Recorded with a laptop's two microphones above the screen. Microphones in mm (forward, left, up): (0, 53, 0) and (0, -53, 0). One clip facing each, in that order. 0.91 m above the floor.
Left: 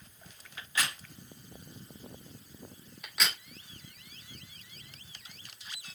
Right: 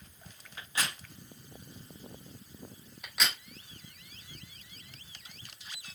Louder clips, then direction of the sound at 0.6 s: Left 1 dB; 30° right (ahead or behind).